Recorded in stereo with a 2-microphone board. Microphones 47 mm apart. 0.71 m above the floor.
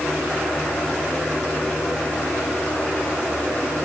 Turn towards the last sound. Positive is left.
No sound to turn to.